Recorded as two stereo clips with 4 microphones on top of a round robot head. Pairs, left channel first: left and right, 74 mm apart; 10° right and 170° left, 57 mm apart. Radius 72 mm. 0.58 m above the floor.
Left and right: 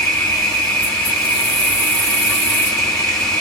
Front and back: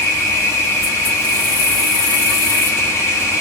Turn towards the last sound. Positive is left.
turn(degrees=10)